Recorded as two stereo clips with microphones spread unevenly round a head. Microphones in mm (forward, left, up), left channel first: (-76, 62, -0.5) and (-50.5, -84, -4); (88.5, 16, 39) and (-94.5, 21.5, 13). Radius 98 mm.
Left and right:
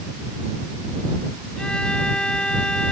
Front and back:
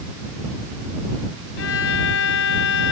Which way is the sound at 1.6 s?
15° left.